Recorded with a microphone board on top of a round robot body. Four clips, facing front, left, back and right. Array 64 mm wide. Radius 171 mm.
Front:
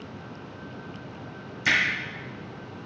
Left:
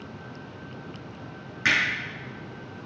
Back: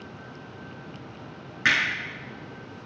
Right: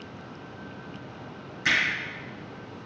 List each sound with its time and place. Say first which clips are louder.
1.6 s hammering: left 1 dB, back 1 dB; 150° left, 6 m